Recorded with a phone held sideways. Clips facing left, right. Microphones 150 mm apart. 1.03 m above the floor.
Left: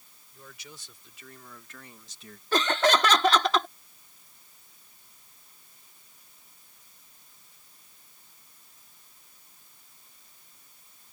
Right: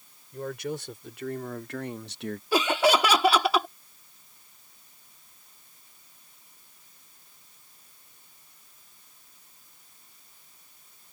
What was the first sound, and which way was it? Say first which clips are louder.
A man speaking: right 18 dB; 60° right (ahead or behind).